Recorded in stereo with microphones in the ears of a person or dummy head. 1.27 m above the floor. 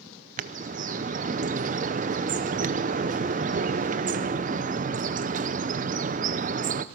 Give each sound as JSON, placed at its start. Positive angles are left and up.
{"t": 0.4, "sound": "a bird", "side_deg": -40, "distance_m": 0.7}